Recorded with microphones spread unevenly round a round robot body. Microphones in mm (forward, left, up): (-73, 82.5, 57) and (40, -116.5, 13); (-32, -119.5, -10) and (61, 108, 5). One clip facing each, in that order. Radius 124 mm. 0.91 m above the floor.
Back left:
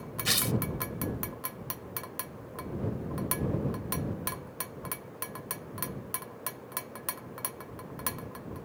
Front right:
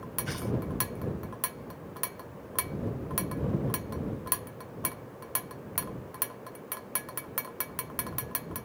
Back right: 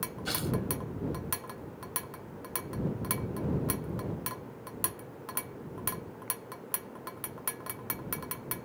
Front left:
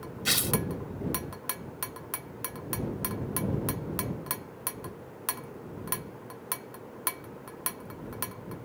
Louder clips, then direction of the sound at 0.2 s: Back left 1 dB, front left 1 dB; 115° left.